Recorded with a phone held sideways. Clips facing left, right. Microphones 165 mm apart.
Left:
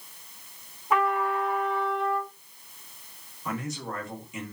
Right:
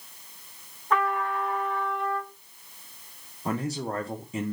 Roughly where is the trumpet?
Centre.